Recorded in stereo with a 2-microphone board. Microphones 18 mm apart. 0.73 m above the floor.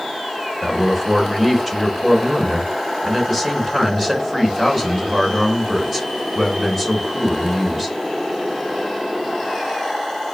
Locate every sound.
0.6 s a man speaking: centre (ahead or behind), 3.5 m